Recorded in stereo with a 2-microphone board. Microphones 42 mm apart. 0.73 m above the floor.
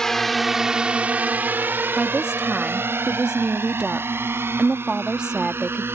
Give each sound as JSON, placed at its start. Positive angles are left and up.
{"t": 0.0, "sound": "a drone", "side_deg": 10}
{"t": 2.0, "sound": "a woman speaking", "side_deg": -20}